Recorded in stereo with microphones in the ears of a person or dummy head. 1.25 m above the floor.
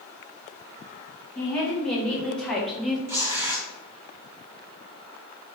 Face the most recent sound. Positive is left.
turn(degrees=-10)  # may be behind; listen again after turning